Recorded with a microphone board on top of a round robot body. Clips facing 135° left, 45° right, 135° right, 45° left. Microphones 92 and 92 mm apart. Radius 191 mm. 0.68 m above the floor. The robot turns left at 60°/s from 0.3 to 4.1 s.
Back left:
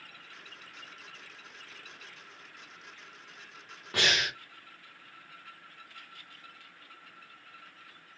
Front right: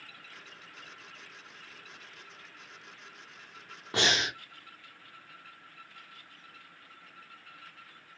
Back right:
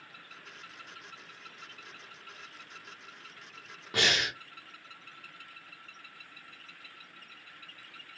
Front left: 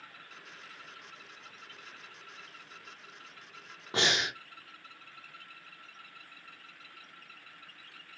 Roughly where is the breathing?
Ahead.